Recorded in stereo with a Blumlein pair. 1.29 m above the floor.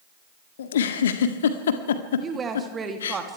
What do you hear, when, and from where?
0.6 s a giggle: 60° left, 1.7 m
2.2 s a woman speaking: 20° right, 2.5 m